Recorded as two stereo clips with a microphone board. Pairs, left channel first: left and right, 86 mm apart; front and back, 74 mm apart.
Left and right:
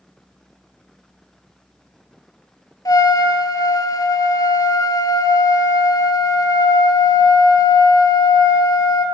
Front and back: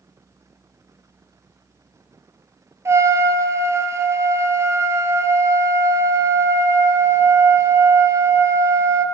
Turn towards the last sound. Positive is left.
turn(degrees=135)